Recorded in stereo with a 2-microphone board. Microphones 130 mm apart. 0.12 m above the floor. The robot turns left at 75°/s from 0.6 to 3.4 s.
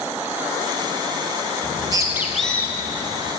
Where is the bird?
50° right (ahead or behind), 0.5 m; by 3.3 s 65° left (ahead or behind), 0.5 m.